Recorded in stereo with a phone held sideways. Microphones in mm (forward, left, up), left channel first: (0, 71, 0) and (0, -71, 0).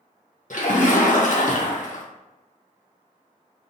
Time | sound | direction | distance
0.5 | a splash | 65° left (ahead or behind) | 0.6 m